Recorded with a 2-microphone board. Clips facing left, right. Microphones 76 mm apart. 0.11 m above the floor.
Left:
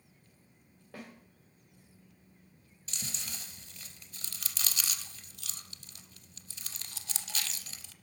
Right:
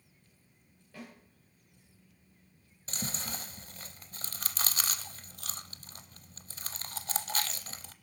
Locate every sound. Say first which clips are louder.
0.9 s a snare drum: left 1 dB; 85° left, 6 m
2.9 s chewing: right 6 dB; 45° right (ahead or behind), 0.6 m